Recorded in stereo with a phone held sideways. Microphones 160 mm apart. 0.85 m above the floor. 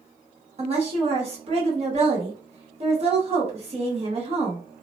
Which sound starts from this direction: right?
A woman speaking, at 0.6 s.